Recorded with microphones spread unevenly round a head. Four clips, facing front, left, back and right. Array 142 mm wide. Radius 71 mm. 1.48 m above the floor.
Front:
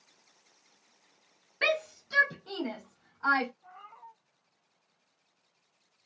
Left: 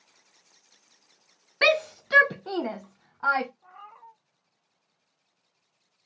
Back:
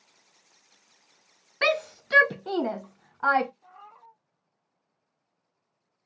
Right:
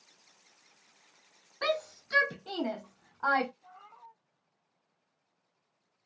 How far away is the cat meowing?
About 1.1 m.